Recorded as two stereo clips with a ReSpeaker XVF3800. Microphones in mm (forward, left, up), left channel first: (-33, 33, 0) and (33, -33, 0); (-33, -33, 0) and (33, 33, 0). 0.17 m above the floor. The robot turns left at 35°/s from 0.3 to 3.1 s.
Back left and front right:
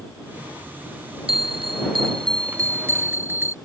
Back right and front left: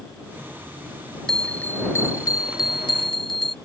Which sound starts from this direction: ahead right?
A bell, at 1.3 s.